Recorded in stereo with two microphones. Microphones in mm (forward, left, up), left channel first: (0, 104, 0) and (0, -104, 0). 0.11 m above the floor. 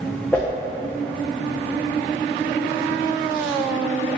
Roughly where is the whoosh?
Centre.